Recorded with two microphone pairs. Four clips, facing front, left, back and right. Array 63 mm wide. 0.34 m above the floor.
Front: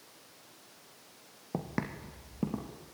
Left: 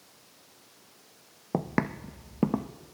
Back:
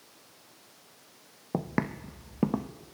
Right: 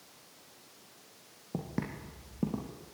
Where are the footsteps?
110° left, 1.2 m; by 2.7 s 130° left, 1.8 m.